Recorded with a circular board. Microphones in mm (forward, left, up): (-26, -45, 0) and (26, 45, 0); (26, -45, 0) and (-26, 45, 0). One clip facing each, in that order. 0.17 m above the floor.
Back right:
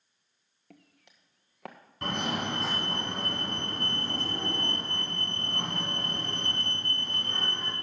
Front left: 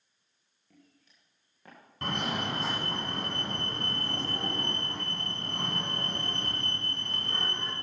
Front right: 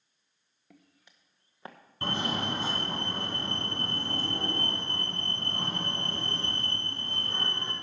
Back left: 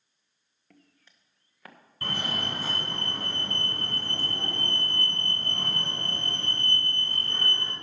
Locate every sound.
0.7 s footsteps: 140° right, 1.6 m; by 1.8 s 125° right, 1.6 m
2.0 s a fire alarm: 30° right, 2 m